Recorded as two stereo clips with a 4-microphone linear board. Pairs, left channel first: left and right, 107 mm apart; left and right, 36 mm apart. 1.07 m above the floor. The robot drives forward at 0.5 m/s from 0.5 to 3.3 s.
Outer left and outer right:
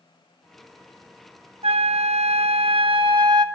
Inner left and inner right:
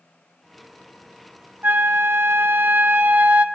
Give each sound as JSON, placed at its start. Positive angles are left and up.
{"t": 1.6, "sound": "a flute", "side_deg": -65, "distance_m": 0.7}